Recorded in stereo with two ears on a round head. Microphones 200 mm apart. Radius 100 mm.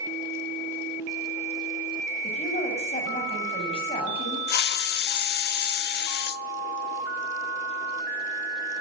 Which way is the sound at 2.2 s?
35° left (ahead or behind).